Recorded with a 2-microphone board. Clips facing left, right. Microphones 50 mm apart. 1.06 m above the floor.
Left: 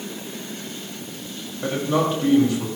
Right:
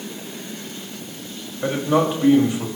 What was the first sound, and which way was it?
A man speaking, 15° right (ahead or behind).